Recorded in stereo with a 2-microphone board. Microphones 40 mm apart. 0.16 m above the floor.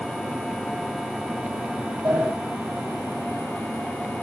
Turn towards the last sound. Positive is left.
turn(degrees=-75)  # may be behind; listen again after turning